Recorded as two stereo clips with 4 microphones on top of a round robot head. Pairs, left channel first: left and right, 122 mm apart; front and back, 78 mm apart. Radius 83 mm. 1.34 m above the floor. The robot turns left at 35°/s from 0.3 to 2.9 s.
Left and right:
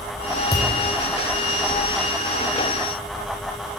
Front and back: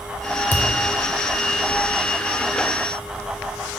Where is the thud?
40° left, 0.7 m; by 0.7 s 35° left, 0.7 m.